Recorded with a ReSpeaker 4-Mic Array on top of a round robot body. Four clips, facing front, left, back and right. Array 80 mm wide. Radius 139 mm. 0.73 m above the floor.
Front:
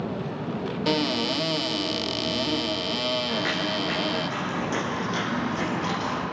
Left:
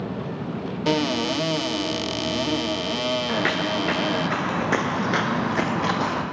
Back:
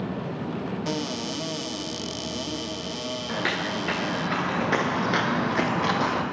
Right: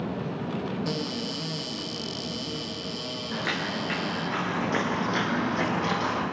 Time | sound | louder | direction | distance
0.9 | a cupboard door | left 9 dB, front 5 dB | 70° left | 0.9 m
3.3 | footsteps | left 7 dB, front 1 dB | 100° left | 5 m